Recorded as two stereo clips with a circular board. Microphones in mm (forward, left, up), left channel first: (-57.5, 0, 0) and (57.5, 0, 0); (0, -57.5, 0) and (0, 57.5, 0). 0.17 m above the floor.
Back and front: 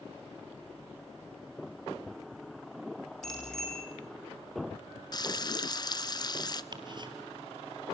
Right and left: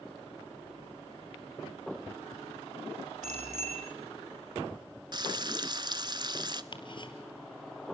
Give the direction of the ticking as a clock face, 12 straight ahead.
2 o'clock.